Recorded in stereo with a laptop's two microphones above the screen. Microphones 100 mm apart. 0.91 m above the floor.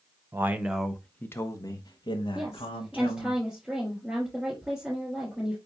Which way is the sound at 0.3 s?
25° right (ahead or behind).